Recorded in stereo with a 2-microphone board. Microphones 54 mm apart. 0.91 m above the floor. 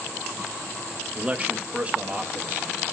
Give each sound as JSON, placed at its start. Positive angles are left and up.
{"t": 1.1, "sound": "a man speaking", "side_deg": -25, "distance_m": 0.8}